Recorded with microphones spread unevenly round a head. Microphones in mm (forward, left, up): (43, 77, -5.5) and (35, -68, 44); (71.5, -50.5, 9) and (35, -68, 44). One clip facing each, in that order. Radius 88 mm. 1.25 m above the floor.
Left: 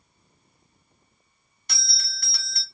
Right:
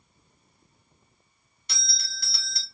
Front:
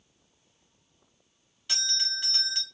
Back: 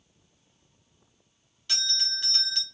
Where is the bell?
85° left, 1.0 m.